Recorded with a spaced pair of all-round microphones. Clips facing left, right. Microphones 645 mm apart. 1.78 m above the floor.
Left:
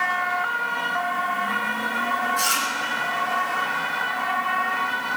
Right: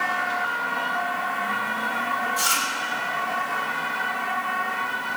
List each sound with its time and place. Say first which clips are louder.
2.4 s chewing: left 1 dB; 60° right (ahead or behind), 3.5 m